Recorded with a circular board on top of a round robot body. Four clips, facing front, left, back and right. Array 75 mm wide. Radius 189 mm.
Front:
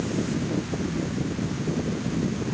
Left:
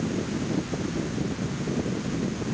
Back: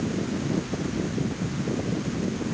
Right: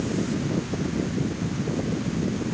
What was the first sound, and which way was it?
Only background noise.